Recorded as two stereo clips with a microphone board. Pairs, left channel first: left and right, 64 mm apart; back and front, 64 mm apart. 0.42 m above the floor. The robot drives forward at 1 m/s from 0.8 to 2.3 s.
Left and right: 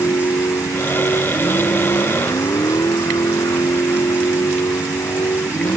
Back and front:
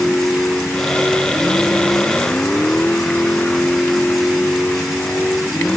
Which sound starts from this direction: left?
A vehicle, at 0.0 s.